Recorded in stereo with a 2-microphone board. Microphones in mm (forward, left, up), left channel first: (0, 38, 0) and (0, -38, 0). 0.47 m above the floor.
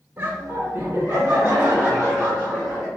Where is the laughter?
30° right (ahead or behind), 1.6 m; by 2.9 s 15° right (ahead or behind), 3.5 m.